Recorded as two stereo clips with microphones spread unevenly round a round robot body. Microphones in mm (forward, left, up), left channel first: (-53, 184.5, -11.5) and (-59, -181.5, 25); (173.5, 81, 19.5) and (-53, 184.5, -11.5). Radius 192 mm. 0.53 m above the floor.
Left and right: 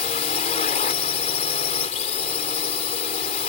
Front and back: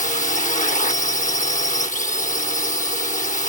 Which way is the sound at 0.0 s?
30° left.